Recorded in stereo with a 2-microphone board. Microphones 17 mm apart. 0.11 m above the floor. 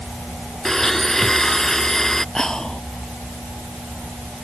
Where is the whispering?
40° left (ahead or behind).